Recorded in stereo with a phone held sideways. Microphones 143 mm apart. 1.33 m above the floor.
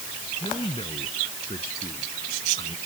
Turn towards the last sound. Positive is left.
turn(degrees=40)  # may be behind; listen again after turning